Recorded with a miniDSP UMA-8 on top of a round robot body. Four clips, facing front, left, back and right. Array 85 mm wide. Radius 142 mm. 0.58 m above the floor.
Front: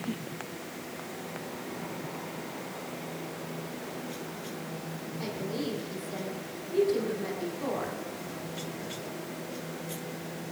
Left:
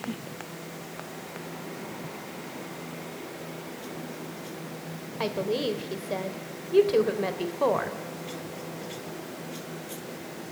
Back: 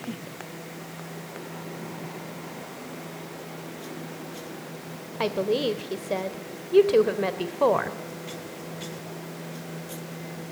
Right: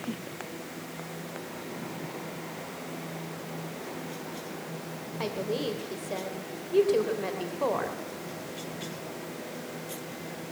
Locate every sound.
5.2 s a woman speaking: 165° left, 2.5 m